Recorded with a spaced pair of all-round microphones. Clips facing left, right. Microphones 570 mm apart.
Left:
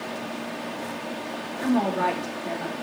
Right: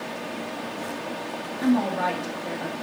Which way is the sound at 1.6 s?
60° right (ahead or behind).